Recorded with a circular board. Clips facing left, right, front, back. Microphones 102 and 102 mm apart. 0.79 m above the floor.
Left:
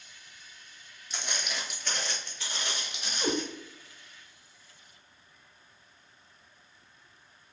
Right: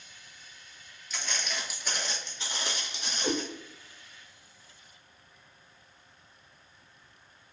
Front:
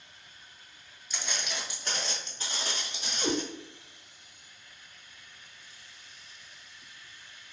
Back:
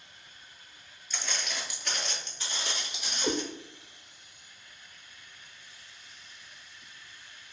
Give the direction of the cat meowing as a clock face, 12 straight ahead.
11 o'clock.